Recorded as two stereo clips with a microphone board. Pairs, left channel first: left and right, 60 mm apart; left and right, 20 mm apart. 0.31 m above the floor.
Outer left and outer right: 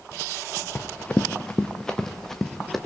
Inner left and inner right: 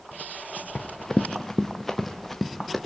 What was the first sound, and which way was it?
Running footsteps, 30° left (ahead or behind).